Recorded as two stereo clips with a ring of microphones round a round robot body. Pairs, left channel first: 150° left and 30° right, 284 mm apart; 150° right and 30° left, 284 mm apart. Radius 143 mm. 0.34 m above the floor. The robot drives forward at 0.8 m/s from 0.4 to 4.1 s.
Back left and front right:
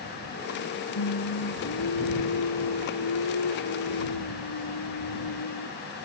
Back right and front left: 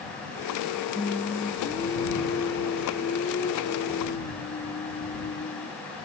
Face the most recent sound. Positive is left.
turn(degrees=145)